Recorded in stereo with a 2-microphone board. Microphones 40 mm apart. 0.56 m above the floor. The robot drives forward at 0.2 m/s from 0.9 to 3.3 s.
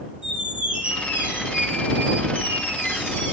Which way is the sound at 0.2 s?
30° right (ahead or behind).